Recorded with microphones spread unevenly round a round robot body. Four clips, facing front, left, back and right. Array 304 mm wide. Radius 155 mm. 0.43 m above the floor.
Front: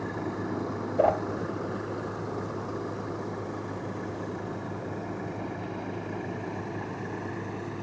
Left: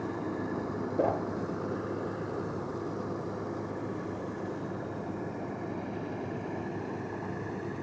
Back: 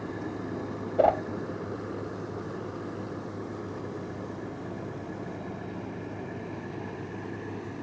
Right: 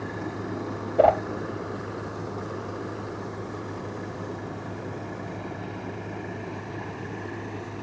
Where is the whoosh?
100° right, 1.1 m.